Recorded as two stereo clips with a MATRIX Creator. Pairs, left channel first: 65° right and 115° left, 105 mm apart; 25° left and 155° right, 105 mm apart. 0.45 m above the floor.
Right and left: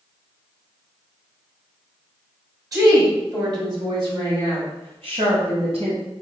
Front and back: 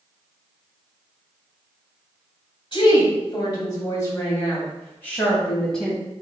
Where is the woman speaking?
60° left, 2 m; by 6.0 s 110° left, 2.5 m.